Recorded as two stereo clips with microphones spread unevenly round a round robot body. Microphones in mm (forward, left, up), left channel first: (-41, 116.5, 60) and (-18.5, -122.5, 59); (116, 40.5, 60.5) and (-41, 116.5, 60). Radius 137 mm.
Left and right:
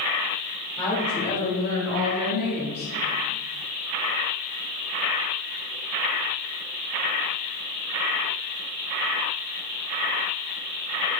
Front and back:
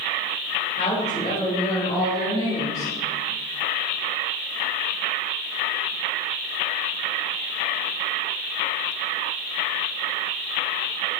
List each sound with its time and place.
0.8 s a woman speaking: 20° left, 3.5 m; by 2.9 s 45° left, 4.5 m